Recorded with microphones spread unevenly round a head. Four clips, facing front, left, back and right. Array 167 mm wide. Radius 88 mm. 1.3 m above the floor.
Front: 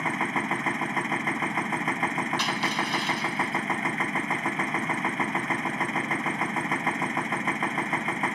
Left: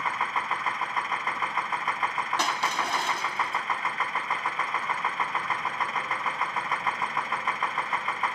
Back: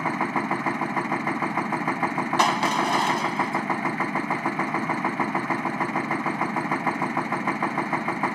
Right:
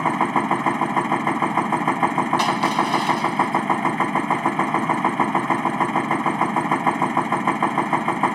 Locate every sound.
0.0 s a machine running: 95° right
2.4 s crushing: 160° right